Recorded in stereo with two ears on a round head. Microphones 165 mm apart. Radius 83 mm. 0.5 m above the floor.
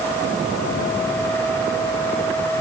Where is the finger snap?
No finger snap in this recording.